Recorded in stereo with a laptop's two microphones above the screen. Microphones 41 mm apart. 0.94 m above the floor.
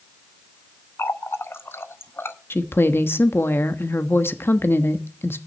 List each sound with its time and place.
1.0 s a running tap: 75° left (ahead or behind), 0.6 m
2.5 s a woman speaking: 70° left (ahead or behind), 1.1 m